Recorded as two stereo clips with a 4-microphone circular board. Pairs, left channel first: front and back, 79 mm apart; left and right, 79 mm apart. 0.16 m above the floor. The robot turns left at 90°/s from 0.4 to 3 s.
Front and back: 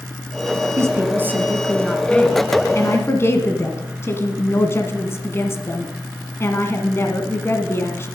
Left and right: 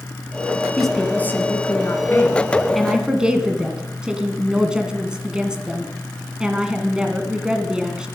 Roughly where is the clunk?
No clunk in this recording.